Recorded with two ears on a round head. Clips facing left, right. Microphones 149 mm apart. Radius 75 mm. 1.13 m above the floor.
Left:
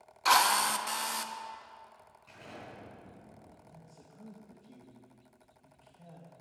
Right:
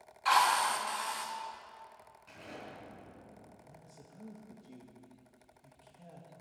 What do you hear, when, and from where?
0.2 s a drill: 55° left (ahead or behind), 0.9 m
2.3 s an explosion: centre (ahead or behind), 5 m
3.6 s a man speaking: 10° right (ahead or behind), 1.6 m